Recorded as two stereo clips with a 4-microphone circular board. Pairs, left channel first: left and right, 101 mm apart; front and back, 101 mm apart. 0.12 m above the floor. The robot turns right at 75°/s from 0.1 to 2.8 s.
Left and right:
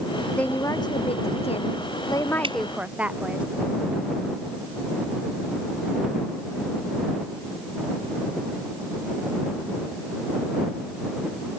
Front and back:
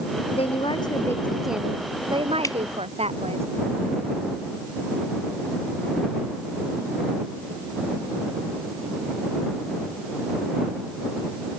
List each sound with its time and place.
0.3 s a woman speaking: 5° left; by 3.4 s 165° right
2.4 s dripping: 55° right; by 2.6 s 50° right